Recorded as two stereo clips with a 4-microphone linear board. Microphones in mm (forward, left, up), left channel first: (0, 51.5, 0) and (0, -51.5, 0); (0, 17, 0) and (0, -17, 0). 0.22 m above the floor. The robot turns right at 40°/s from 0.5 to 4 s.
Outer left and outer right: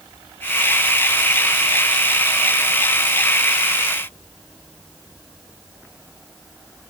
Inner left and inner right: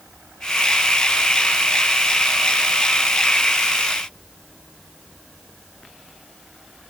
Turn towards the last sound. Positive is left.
No sound to turn to.